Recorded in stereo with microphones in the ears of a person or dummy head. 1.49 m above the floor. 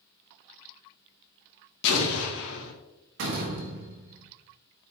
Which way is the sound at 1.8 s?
70° left (ahead or behind).